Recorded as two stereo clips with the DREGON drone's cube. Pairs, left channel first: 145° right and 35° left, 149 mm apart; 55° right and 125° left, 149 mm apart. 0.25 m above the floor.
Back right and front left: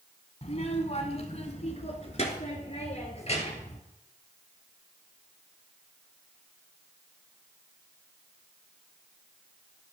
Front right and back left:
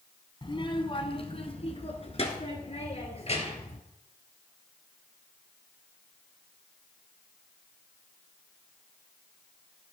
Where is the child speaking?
110° right, 1.3 m; by 3.8 s 100° right, 3.5 m.